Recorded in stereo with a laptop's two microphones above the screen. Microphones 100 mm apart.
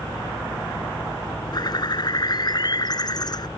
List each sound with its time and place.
0.0 s a fan: 55° left (ahead or behind)
1.5 s a bird: 45° left (ahead or behind)